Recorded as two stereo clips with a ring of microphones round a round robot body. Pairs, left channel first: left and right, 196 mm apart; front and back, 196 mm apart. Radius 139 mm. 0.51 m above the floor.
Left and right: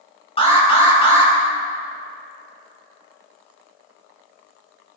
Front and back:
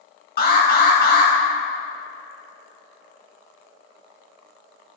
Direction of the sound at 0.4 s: 30° left.